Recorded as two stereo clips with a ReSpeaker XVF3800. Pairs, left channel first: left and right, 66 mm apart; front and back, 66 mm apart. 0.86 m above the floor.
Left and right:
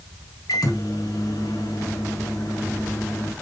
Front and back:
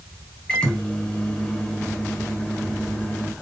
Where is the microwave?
75° left, 1.1 m.